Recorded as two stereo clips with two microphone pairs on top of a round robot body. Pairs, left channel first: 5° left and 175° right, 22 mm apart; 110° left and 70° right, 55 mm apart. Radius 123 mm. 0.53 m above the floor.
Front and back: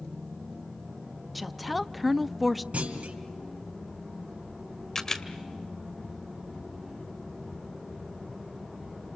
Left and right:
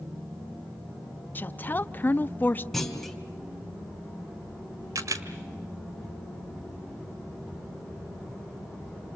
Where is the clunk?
165° right, 2 m.